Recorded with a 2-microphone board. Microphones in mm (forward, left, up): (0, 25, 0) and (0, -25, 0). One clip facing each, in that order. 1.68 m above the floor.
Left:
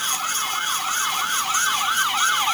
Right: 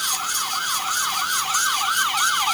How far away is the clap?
No clap in this recording.